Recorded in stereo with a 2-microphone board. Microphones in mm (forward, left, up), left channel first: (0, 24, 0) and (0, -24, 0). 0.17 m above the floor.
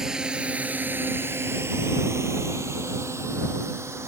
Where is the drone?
10° right (ahead or behind); by 4.1 s 70° right (ahead or behind).